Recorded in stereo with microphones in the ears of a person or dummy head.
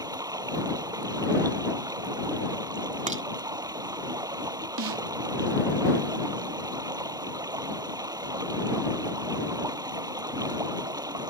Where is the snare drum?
70° right (ahead or behind).